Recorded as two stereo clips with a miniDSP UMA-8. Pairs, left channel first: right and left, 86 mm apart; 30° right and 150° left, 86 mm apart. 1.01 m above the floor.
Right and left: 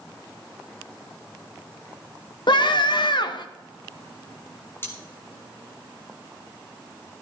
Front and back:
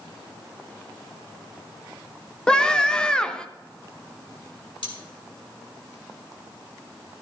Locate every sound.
2.5 s a scream: 110° right, 0.9 m
4.8 s cutlery clinking: 30° right, 1.9 m